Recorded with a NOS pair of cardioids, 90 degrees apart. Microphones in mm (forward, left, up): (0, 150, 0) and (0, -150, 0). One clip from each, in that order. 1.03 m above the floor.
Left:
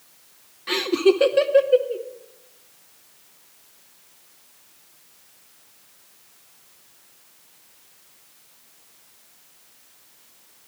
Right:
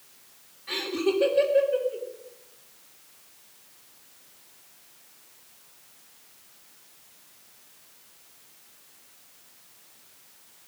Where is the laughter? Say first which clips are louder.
Left 8 dB; 70° left, 1.2 m.